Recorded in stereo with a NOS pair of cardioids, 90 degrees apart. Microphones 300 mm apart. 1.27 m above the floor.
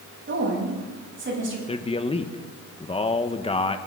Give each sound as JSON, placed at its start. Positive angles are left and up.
{"t": 0.3, "sound": "a woman speaking", "azimuth_deg": -40, "distance_m": 10.0}
{"t": 1.7, "sound": "a man speaking", "azimuth_deg": 20, "distance_m": 1.5}